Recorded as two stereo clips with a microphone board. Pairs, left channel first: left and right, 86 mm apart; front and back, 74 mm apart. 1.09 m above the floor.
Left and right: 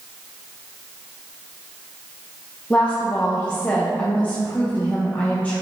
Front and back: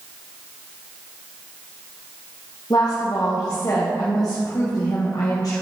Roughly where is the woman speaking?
Ahead.